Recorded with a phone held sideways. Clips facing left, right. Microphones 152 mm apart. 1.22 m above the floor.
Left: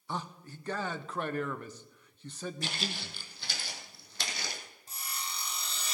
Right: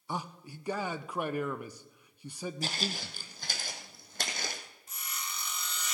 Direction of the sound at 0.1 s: 10° right (ahead or behind).